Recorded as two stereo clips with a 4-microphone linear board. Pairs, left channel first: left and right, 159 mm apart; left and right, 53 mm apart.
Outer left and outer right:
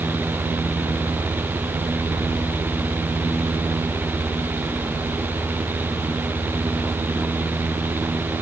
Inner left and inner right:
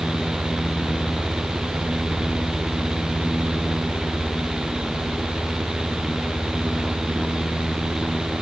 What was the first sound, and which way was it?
Only background noise.